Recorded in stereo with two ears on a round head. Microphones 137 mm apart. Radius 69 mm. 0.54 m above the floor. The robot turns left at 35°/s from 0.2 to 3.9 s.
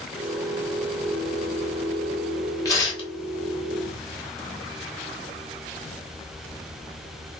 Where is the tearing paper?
20° left (ahead or behind), 1.1 m; by 3.1 s 35° left (ahead or behind), 1.1 m.